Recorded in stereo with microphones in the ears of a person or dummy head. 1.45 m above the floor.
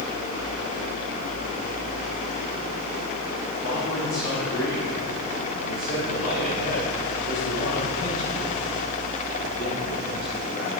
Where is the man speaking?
70° left (ahead or behind), 4 m; by 10.7 s 50° left (ahead or behind), 11.5 m.